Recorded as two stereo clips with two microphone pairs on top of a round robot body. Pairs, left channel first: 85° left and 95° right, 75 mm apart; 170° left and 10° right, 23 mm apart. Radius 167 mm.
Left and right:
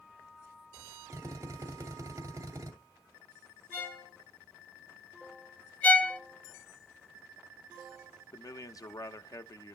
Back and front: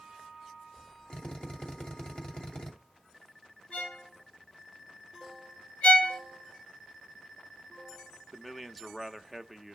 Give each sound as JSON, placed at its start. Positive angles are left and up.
{"t": 1.1, "sound": "a drill", "azimuth_deg": -140, "distance_m": 2.0}
{"t": 3.7, "sound": "a violin", "azimuth_deg": 150, "distance_m": 5.5}
{"t": 5.8, "sound": "a violin", "azimuth_deg": 155, "distance_m": 1.0}
{"t": 8.3, "sound": "a man speaking", "azimuth_deg": 80, "distance_m": 0.9}